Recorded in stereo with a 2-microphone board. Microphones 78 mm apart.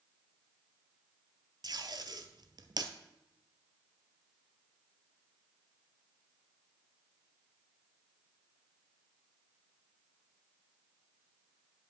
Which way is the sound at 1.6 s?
65° right (ahead or behind).